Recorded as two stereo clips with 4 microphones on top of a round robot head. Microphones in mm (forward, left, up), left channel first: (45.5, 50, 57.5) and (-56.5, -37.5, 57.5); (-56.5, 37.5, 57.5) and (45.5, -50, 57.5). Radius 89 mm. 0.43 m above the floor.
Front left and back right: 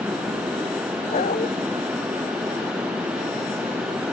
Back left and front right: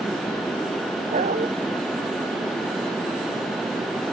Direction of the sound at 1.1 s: Straight ahead.